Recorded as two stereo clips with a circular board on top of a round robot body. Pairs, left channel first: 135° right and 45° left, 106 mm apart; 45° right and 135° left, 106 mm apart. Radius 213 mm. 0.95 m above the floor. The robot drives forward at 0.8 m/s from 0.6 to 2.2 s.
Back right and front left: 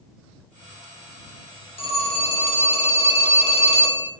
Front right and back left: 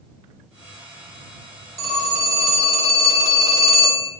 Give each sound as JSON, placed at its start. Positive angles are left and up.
{"t": 1.8, "sound": "a phone ringing", "azimuth_deg": -160, "distance_m": 2.0}